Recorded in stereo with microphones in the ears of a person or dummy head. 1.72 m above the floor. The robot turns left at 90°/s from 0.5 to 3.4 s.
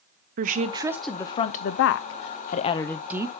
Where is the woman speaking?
130° right, 0.8 m; by 3.4 s 30° right, 0.8 m.